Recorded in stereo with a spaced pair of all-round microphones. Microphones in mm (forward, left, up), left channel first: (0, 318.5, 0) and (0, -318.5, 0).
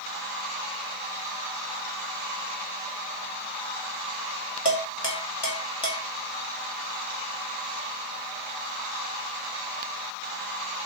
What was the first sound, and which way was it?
Dishes clattering, 40° left (ahead or behind).